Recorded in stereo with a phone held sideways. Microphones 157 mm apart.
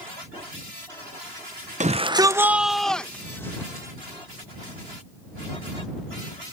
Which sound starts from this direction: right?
A shout, at 1.8 s.